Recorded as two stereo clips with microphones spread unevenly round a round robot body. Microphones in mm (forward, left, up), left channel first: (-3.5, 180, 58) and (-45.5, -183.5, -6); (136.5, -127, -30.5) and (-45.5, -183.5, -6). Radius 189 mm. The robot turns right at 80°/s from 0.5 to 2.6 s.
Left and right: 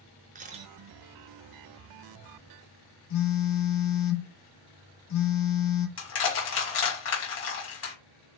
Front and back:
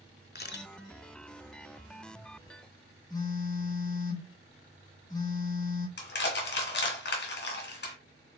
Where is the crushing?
25° left, 1.7 m.